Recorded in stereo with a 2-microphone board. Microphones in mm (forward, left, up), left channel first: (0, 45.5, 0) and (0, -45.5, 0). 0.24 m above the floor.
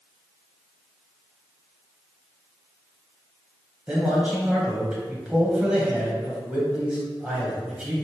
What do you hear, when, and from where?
3.9 s a man speaking: 10° right (ahead or behind), 1.0 m